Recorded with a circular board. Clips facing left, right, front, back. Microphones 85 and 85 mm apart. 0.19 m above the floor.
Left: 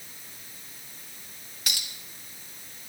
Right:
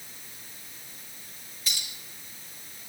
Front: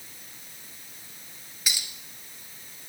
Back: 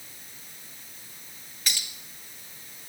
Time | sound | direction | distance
1.7 | a clink | 80° left | 1.7 m